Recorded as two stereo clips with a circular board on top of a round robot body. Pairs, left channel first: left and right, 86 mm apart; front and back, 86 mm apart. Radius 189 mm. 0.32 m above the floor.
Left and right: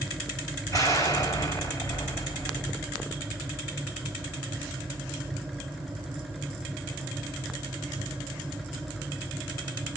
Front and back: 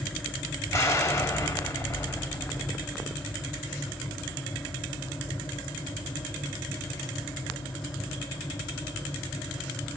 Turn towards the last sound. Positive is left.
turn(degrees=50)